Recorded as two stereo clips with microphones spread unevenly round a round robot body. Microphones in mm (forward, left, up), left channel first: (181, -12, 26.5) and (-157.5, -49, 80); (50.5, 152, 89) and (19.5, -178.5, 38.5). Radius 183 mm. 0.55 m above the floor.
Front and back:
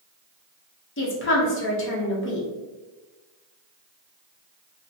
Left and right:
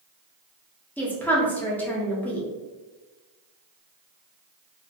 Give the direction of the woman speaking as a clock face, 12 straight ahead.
12 o'clock.